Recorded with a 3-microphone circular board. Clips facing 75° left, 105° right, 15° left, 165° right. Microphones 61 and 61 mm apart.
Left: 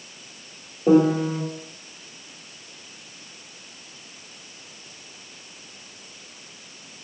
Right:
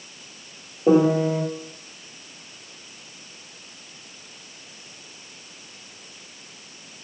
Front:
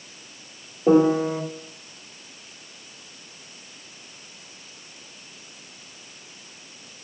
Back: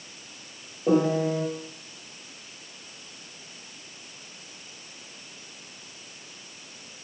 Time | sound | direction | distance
0.9 | a piano | 35° right | 1.7 m